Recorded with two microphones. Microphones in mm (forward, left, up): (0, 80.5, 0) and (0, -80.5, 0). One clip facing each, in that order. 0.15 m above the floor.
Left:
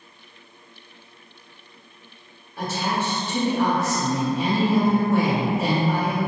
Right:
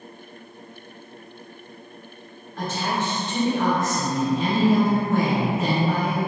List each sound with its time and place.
2.6 s a woman speaking: 10° left (ahead or behind), 1.7 m